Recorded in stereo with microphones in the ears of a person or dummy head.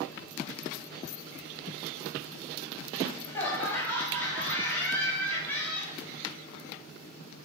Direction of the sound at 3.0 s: 10° left (ahead or behind).